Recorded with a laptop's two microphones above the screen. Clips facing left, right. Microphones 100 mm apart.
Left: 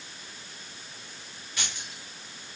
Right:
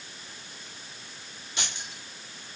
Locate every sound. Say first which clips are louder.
1.6 s keys jangling: right 1 dB; 20° right (ahead or behind), 3 m